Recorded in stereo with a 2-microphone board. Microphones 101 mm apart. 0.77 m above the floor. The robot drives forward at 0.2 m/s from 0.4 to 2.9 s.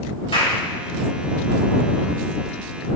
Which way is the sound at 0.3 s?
60° left (ahead or behind).